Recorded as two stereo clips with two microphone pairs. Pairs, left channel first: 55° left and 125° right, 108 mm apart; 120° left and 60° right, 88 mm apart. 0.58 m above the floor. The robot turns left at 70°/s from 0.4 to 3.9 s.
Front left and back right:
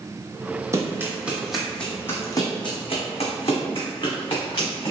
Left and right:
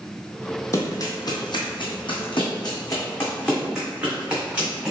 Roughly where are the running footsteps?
Behind.